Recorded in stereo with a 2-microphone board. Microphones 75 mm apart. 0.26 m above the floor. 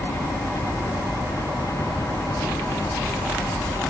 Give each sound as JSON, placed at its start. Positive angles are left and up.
{"t": 0.0, "sound": "a helicopter", "side_deg": 50}